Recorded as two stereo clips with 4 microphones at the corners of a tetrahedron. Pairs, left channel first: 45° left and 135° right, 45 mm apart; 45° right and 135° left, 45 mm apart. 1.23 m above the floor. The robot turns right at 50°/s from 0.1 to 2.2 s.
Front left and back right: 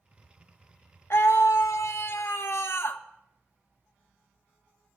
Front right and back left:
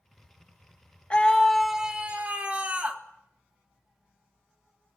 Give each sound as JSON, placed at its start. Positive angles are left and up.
{"t": 1.1, "sound": "a scream", "azimuth_deg": 20, "distance_m": 1.6}